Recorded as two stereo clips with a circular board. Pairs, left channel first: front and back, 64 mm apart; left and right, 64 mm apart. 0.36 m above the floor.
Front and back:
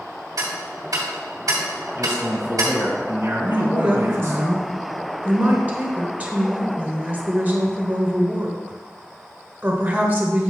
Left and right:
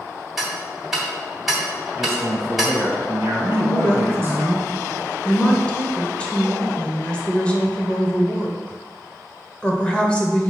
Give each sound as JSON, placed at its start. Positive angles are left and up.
{"t": 0.4, "sound": "ticking", "azimuth_deg": -175, "distance_m": 2.5}
{"t": 2.0, "sound": "a man speaking", "azimuth_deg": -135, "distance_m": 1.9}
{"t": 3.5, "sound": "a woman speaking", "azimuth_deg": 145, "distance_m": 1.3}